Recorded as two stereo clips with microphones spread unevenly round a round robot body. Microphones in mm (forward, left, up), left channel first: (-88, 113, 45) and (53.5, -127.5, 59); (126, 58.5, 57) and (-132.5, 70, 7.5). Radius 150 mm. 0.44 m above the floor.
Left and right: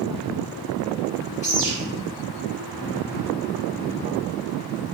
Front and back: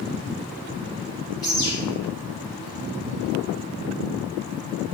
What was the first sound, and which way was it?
A bird, 80° left.